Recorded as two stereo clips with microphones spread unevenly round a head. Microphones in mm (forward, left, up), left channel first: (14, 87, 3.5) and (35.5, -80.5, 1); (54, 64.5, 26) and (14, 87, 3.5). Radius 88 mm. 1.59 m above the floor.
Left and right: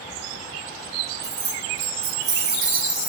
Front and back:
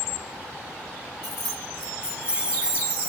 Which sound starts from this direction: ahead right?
Keys jangling, at 1.2 s.